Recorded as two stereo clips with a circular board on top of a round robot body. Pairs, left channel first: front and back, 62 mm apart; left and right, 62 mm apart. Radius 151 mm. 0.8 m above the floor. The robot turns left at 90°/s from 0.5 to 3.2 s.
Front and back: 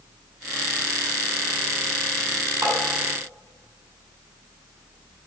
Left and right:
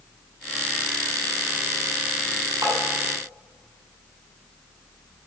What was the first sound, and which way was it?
Tapping, 130° right.